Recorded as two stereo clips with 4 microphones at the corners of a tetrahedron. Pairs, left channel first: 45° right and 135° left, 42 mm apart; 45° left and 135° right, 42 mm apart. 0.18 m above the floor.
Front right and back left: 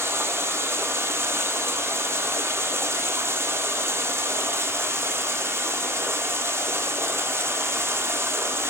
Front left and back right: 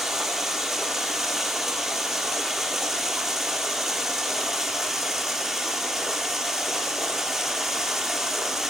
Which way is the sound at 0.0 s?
140° left.